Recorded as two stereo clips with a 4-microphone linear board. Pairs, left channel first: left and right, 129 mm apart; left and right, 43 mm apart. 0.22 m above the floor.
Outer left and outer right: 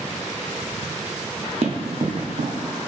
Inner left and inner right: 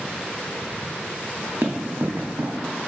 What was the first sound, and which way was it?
Running footsteps, 55° right (ahead or behind).